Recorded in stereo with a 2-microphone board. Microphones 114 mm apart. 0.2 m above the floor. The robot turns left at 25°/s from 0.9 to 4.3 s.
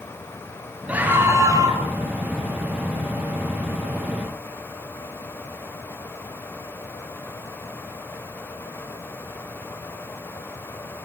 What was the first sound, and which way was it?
A scream, 10° right (ahead or behind).